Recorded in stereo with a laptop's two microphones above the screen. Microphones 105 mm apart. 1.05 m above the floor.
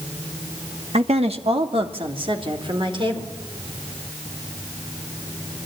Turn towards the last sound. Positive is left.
turn(degrees=-50)  # may be behind; listen again after turning